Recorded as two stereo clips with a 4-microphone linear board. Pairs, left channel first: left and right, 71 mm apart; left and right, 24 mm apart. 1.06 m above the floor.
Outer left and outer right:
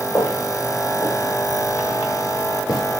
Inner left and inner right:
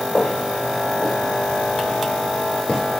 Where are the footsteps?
50° left (ahead or behind), 7 m; by 2.8 s 60° left (ahead or behind), 6.5 m.